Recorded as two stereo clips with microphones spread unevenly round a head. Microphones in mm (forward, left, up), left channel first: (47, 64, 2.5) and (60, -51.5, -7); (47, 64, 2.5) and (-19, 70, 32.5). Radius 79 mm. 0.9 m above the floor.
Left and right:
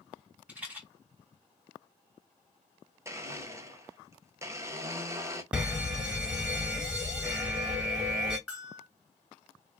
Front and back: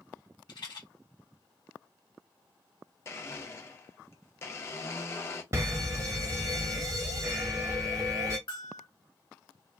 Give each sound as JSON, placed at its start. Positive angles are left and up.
{"t": 0.5, "sound": "a rattle", "azimuth_deg": -5, "distance_m": 2.5}
{"t": 3.0, "sound": "a blender", "azimuth_deg": -25, "distance_m": 0.8}
{"t": 5.5, "sound": "a fire alarm", "azimuth_deg": -140, "distance_m": 1.2}
{"t": 8.5, "sound": "a bell", "azimuth_deg": 0, "distance_m": 2.0}